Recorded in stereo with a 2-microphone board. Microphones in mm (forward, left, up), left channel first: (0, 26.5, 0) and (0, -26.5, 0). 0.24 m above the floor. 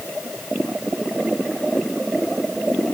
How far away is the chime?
I don't hear a chime.